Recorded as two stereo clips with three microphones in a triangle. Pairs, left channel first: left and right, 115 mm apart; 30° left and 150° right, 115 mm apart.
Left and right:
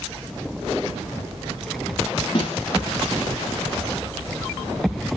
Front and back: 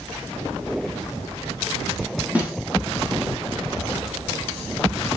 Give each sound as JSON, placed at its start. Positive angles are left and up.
{"t": 2.4, "sound": "a snare drum", "azimuth_deg": 135, "distance_m": 4.5}